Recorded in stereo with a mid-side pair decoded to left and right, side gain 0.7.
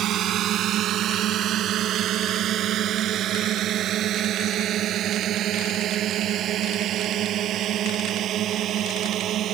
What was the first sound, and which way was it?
A drone, 50° right.